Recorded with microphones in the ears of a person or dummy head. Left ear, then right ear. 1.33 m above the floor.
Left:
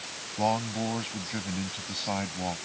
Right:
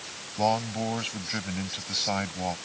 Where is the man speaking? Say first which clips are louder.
Right 2 dB; 40° right (ahead or behind).